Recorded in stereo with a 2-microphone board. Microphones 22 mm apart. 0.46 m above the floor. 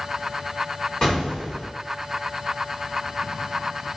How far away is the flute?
I don't hear a flute.